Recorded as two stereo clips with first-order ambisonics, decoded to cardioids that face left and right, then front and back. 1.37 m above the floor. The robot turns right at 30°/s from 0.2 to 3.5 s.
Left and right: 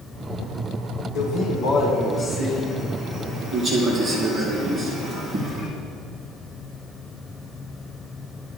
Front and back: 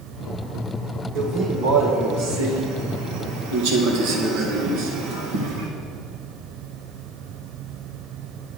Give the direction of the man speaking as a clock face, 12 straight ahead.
8 o'clock.